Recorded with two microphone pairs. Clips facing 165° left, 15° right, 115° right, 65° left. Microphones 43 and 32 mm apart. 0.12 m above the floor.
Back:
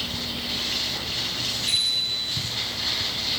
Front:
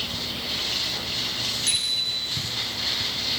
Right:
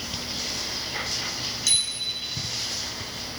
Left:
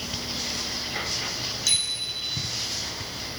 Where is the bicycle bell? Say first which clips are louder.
Back 3 dB, right 1 dB; 25° right, 4 m.